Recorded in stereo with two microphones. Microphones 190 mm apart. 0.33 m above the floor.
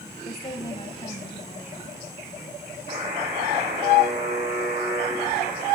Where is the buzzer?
50° right (ahead or behind), 6.5 m.